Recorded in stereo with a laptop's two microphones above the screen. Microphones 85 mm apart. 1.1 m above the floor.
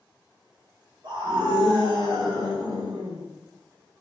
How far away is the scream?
About 2.5 m.